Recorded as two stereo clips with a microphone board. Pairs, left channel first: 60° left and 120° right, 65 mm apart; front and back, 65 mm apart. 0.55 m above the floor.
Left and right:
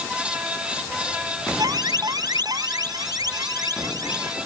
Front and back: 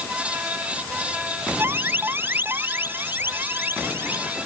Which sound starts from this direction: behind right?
An alarm, at 1.6 s.